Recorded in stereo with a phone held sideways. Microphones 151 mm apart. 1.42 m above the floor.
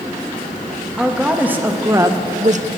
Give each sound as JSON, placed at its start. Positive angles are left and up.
{"t": 1.0, "sound": "a woman speaking", "side_deg": -5, "distance_m": 3.0}